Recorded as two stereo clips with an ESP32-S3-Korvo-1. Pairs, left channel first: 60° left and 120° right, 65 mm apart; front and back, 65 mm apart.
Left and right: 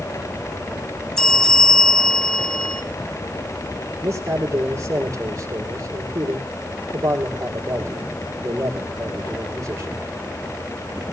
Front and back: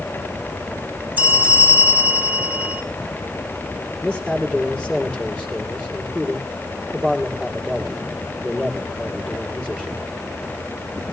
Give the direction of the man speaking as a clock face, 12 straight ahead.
3 o'clock.